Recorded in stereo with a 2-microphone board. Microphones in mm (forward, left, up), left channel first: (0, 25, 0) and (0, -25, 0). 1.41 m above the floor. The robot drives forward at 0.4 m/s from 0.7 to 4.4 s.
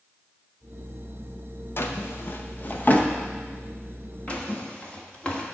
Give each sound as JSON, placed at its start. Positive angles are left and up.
{"t": 1.8, "sound": "a drawer", "side_deg": 50, "distance_m": 0.7}